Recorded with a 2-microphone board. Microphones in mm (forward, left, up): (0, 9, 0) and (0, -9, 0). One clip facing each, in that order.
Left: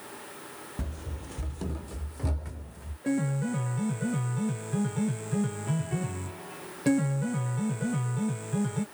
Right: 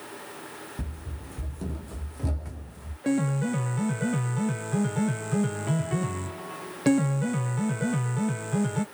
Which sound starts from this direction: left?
Running footsteps, at 0.8 s.